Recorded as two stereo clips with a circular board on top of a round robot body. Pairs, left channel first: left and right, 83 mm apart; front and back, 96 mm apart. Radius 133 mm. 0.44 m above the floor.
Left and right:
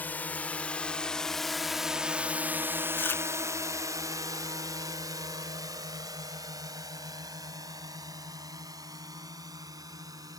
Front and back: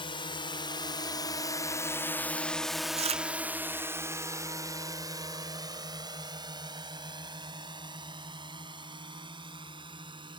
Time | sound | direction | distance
0.0 | a drone | 25° left | ?
3.0 | chewing | 160° left | ?